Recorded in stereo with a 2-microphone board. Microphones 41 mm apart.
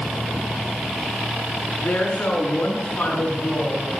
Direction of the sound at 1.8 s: 45° left (ahead or behind).